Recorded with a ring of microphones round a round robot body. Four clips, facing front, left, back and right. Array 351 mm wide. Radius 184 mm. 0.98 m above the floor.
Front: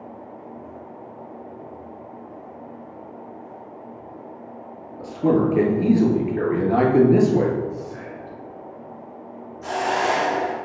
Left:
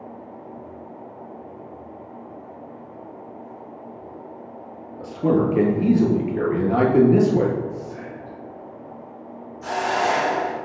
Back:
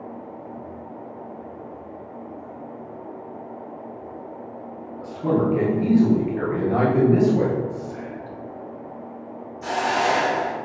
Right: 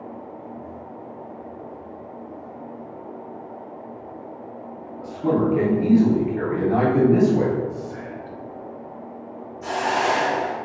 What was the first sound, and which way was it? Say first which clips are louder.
A man speaking: left 1 dB, front 3 dB; 50° left.